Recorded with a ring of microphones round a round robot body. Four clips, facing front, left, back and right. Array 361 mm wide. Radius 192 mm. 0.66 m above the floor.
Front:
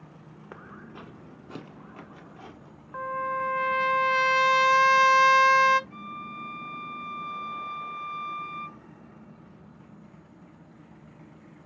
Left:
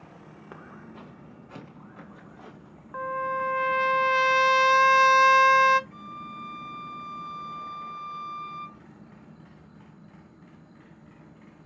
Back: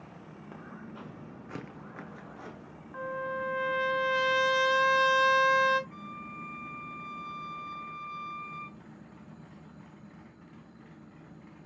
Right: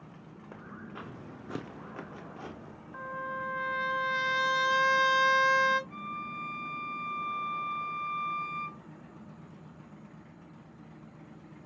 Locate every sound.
0.5 s footsteps: 40° left, 0.6 m; by 2.8 s 105° right, 1.7 m
2.9 s a trumpet: 55° left, 1.0 m
5.9 s a violin: 160° right, 4 m